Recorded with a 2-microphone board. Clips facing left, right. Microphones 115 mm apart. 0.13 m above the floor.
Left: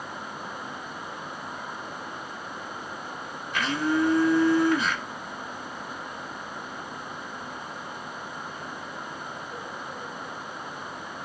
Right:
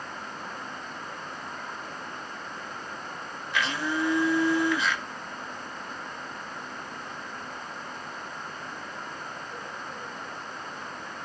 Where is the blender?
45° left (ahead or behind), 1.0 m.